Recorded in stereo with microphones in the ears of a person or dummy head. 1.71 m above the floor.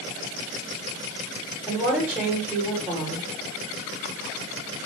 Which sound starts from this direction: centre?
A woman speaking, at 1.7 s.